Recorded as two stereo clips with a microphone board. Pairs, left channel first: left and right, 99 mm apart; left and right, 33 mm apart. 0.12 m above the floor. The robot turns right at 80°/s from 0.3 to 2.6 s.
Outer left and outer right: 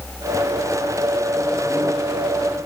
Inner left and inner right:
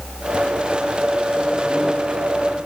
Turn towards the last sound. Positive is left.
No sound to turn to.